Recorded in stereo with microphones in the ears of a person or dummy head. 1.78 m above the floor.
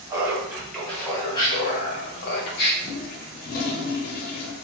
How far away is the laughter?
About 1.2 m.